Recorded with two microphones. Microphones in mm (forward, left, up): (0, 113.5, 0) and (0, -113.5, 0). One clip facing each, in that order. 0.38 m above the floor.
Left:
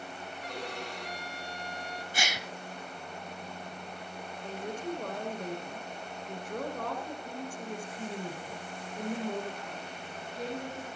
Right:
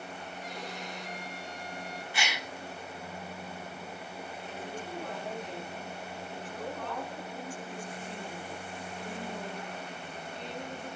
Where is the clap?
I don't hear a clap.